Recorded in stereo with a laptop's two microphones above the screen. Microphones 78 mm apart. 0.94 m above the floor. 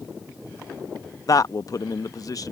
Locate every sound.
1.3 s a man speaking: 50° left (ahead or behind)